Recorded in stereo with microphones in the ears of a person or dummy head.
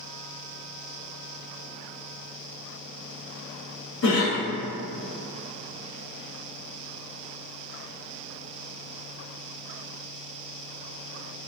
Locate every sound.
4.0 s a cough: 70° left (ahead or behind), 1.0 m